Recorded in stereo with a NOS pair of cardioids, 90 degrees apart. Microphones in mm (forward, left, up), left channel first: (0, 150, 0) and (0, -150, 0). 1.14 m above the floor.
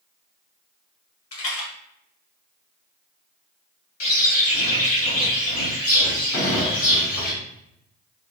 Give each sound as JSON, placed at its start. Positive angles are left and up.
{"t": 1.3, "sound": "a rattle", "azimuth_deg": 50, "distance_m": 1.4}
{"t": 4.0, "sound": "a bird", "azimuth_deg": 50, "distance_m": 1.6}
{"t": 6.3, "sound": "a gunshot", "azimuth_deg": 50, "distance_m": 1.8}